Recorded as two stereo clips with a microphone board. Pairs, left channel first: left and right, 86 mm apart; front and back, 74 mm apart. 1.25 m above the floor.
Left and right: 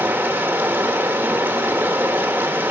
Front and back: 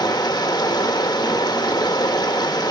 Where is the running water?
20° right, 1.2 m.